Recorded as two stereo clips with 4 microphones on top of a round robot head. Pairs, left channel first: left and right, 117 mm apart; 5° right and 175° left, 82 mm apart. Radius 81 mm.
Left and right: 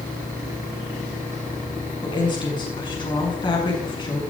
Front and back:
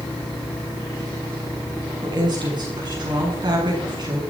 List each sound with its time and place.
2.0 s a woman speaking: 140° left, 7 m